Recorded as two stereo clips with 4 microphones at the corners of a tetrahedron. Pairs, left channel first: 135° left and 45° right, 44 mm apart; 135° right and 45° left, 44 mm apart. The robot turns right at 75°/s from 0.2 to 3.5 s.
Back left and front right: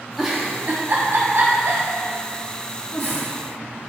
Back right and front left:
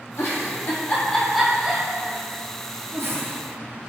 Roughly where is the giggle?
Behind right.